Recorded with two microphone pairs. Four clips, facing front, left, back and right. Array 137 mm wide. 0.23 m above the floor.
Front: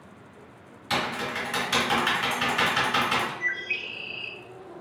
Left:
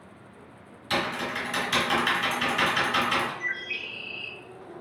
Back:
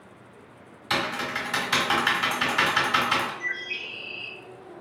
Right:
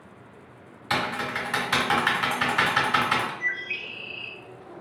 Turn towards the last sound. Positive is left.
turn(degrees=-15)